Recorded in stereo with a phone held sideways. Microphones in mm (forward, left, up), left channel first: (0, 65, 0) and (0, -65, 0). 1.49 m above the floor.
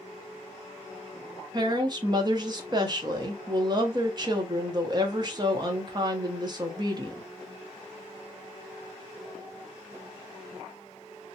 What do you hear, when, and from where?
1.5 s a woman speaking: 35° right (ahead or behind), 0.8 m